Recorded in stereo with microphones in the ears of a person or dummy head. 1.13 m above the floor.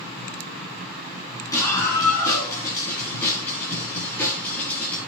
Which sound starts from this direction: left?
A scream, at 1.5 s.